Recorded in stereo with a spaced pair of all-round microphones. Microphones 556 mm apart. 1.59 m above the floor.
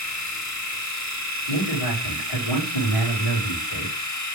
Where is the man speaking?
70° left (ahead or behind), 3 m.